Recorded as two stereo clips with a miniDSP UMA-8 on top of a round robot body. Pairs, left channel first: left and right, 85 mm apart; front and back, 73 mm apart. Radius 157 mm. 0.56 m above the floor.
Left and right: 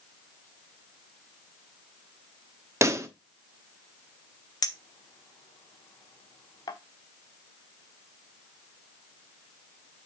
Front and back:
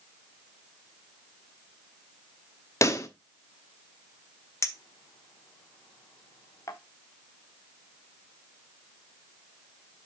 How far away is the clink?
About 1.1 m.